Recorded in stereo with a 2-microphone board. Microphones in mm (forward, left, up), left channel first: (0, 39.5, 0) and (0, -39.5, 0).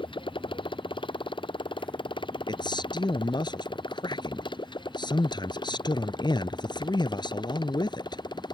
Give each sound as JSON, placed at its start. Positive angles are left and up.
{"t": 0.0, "sound": "a motorcycle", "side_deg": 85}
{"t": 2.5, "sound": "a man speaking", "side_deg": 65}